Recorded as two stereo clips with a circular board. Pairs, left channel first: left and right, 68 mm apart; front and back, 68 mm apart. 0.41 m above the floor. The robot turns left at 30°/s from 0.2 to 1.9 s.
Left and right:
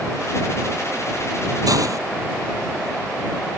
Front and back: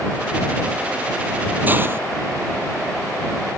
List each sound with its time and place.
1.7 s a hiss: 115° right; by 2.0 s 125° right